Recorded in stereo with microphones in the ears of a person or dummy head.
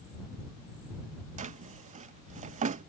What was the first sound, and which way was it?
A drawer, 40° right (ahead or behind).